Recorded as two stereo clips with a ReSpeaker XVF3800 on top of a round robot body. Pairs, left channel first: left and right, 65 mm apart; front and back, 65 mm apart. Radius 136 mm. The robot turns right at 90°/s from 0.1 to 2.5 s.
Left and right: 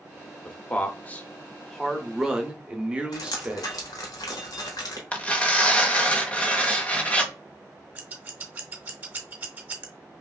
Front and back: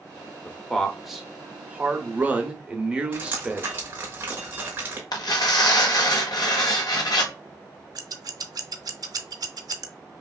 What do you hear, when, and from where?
0.5 s a man speaking: 40° left, 1.0 m; by 3.7 s 135° right, 1.0 m
3.1 s dripping: 115° left, 0.7 m
5.1 s tearing paper: 20° left, 0.9 m
8.0 s scissors: 155° right, 0.6 m